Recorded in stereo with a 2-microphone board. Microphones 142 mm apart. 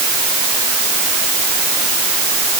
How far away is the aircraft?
I don't hear an aircraft.